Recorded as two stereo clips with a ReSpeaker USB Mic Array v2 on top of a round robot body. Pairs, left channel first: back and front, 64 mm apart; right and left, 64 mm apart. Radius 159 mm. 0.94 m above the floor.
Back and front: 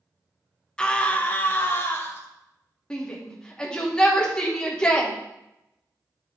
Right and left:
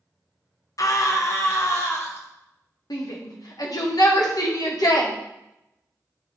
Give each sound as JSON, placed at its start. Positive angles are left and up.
{"t": 0.8, "sound": "a scream", "azimuth_deg": -105, "distance_m": 1.5}
{"t": 2.9, "sound": "a shout", "azimuth_deg": -100, "distance_m": 2.0}